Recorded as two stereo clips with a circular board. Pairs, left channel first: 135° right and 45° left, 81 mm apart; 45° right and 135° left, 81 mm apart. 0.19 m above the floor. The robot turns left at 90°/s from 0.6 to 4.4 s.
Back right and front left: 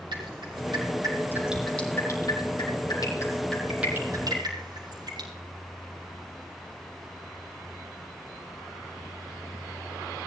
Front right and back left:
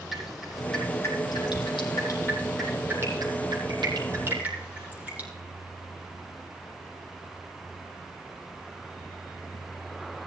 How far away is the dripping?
About 5.5 m.